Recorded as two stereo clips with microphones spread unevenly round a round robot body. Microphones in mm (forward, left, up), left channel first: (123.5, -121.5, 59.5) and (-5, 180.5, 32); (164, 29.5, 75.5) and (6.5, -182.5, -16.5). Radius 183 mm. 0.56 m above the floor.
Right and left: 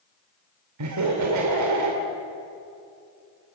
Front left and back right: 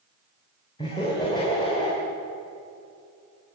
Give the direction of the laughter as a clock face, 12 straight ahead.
7 o'clock.